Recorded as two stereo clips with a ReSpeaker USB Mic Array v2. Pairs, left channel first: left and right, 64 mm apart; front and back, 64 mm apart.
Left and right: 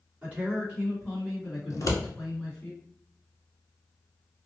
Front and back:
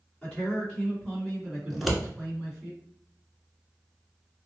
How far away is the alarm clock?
I don't hear an alarm clock.